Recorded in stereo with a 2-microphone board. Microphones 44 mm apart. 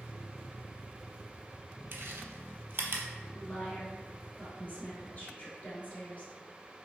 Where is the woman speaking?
35° left (ahead or behind), 1.4 m.